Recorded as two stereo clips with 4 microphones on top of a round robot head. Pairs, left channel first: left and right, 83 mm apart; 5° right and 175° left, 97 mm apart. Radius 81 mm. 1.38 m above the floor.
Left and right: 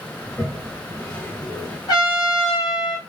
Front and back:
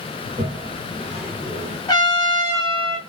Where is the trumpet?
45° left, 1.8 m.